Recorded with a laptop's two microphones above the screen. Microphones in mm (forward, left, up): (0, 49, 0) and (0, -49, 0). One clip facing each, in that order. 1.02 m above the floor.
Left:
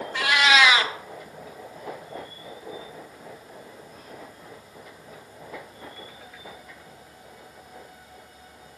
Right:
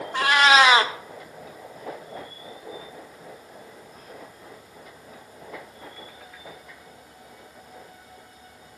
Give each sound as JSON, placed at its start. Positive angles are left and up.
{"t": 0.1, "sound": "a cat meowing", "side_deg": -40, "distance_m": 0.5}